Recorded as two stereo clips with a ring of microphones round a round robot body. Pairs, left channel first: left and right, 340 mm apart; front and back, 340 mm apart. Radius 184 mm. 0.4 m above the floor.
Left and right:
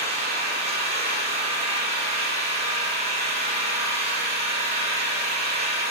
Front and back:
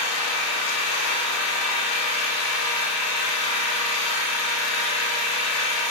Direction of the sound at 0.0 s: 15° right.